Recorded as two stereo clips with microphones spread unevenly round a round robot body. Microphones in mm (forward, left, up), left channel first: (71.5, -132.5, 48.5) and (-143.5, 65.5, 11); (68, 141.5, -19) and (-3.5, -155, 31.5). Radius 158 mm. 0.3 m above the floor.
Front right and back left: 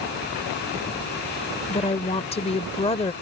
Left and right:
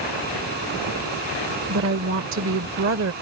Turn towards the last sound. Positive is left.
turn(degrees=-105)